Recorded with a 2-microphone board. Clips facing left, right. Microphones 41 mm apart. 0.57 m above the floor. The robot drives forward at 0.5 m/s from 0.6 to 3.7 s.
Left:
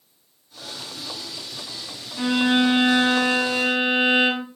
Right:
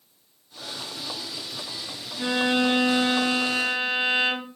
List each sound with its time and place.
2.2 s a violin: 80° left, 5 m; by 4.5 s 75° left (ahead or behind), 5 m